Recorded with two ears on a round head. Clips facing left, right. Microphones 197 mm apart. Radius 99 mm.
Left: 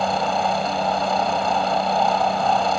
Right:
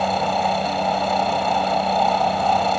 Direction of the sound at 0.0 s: Centre (ahead or behind).